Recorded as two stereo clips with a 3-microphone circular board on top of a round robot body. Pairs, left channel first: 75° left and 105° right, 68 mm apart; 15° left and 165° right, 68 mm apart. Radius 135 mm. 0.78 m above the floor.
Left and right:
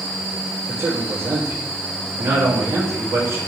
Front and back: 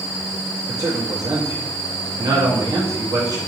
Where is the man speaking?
155° right, 1.5 m.